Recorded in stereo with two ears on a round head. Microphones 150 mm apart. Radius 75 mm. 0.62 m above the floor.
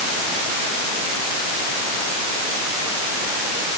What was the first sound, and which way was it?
Only background noise.